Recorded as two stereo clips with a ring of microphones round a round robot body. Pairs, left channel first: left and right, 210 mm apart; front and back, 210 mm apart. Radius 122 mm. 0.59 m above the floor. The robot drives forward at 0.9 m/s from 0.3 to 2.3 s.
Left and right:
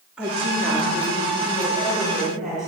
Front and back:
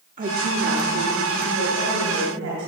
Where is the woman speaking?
175° right, 1.0 m; by 2.7 s straight behind, 2.5 m.